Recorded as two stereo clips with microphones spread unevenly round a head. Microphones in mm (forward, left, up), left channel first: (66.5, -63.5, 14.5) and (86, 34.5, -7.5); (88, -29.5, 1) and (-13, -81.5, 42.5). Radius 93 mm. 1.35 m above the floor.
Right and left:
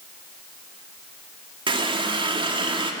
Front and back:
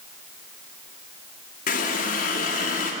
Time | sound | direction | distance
1.7 | a running tap | 40° left | 1.6 m